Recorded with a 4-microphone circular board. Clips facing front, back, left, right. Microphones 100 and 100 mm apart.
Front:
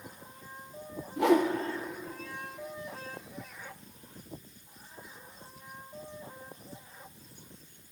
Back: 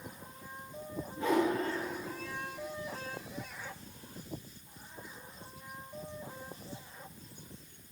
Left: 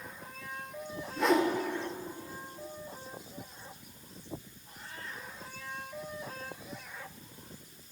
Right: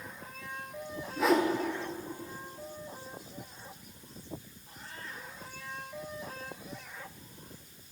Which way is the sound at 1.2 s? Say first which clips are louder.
Front 5 dB, right 1 dB; straight ahead.